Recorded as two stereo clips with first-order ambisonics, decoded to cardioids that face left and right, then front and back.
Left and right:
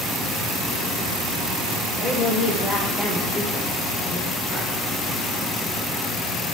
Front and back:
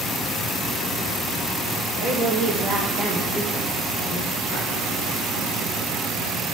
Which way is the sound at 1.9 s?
155° left.